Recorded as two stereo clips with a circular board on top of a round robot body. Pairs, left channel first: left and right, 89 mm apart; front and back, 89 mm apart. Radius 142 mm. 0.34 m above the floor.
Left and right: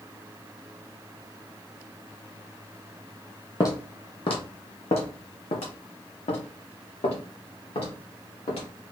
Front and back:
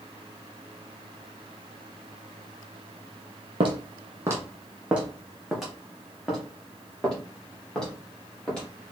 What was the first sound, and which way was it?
Footsteps, 150° left.